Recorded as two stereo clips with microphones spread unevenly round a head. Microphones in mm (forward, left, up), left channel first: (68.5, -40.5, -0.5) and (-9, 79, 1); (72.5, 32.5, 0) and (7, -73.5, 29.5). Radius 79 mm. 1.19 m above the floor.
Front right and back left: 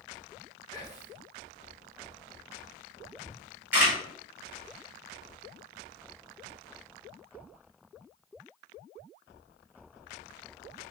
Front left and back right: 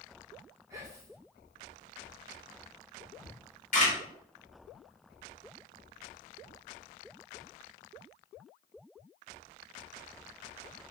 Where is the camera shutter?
50° left, 1.2 m.